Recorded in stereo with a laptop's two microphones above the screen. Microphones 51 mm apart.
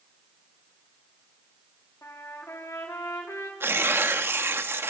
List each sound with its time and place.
2.0 s a trumpet: 75° left (ahead or behind), 2 m
3.6 s tearing paper: 50° right (ahead or behind), 1.0 m